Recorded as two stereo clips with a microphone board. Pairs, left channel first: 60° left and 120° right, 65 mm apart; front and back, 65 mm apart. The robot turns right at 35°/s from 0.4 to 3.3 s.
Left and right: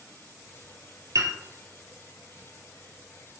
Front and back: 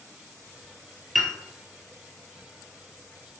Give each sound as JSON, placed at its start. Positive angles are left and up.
{"t": 1.1, "sound": "a piano", "azimuth_deg": -90, "distance_m": 1.5}